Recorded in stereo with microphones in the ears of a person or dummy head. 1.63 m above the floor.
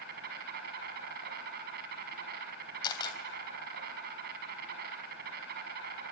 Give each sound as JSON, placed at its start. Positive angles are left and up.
{"t": 0.0, "sound": "an insect", "side_deg": -60, "distance_m": 6.0}
{"t": 2.8, "sound": "a camera shutter", "side_deg": 25, "distance_m": 3.5}